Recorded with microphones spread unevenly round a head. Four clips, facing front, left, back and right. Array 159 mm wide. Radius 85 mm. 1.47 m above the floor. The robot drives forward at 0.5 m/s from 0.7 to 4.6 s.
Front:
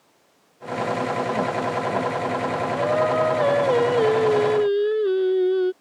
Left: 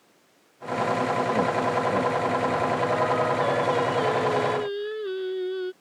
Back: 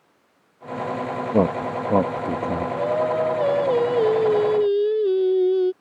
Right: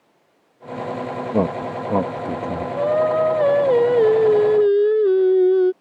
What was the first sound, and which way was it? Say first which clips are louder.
A man speaking: right 2 dB, back 3 dB; 160° right.